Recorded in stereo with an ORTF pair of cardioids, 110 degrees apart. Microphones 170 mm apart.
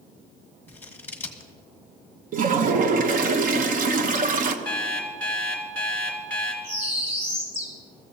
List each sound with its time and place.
0.7 s scissors: 10° left, 1.6 m
2.3 s a toilet flushing: 55° right, 1.0 m
4.7 s an alarm clock: 10° left, 3.5 m
6.6 s a bird: 45° right, 4.5 m